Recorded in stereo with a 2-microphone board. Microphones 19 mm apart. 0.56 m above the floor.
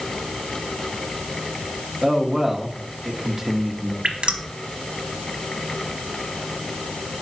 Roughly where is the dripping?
Right.